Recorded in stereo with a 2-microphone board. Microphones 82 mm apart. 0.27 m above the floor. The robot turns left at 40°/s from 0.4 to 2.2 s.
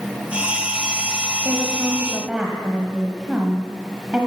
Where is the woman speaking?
135° right, 1.4 m; by 4.3 s 165° right, 1.4 m.